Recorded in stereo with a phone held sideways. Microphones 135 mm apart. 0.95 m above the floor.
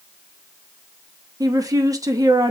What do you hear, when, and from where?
1.4 s a woman speaking: 25° right (ahead or behind), 0.7 m